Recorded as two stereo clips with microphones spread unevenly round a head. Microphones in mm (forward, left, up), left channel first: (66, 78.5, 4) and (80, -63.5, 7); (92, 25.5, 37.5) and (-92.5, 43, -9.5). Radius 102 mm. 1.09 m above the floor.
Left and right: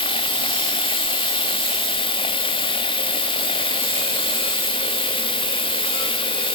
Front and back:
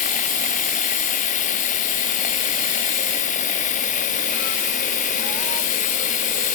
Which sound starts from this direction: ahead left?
Running water, at 0.0 s.